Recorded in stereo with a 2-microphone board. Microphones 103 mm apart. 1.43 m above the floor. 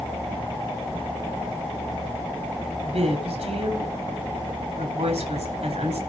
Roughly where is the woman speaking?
Right.